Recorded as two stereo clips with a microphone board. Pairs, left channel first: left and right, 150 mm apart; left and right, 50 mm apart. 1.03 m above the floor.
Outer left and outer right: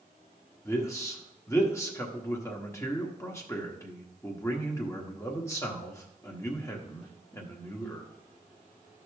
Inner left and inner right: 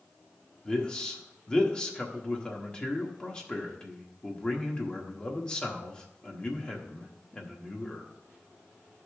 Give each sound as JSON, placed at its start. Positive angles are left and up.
{"t": 0.7, "sound": "a man speaking", "side_deg": 20, "distance_m": 1.3}